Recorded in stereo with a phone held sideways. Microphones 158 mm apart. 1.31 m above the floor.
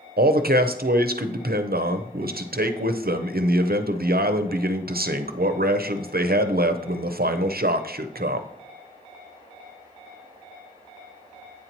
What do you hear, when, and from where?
0.2 s a man speaking: 75° right (ahead or behind), 0.5 m